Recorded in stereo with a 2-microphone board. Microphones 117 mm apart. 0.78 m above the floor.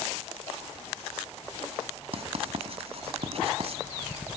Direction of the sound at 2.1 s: 60° right (ahead or behind).